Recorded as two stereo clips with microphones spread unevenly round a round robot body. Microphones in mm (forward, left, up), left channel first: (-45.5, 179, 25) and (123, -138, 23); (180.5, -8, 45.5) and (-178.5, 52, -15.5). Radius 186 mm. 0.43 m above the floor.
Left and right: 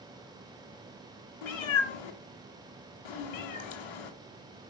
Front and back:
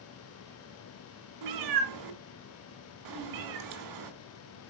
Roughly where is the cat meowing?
Behind left.